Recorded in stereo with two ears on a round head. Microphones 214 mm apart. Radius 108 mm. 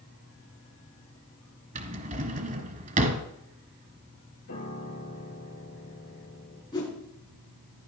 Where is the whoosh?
20° left (ahead or behind), 4 m.